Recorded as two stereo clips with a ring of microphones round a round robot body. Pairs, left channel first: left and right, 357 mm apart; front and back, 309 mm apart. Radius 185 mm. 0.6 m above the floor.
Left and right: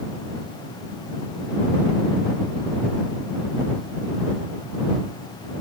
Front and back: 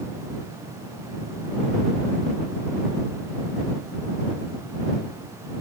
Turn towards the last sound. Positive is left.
No sound to turn to.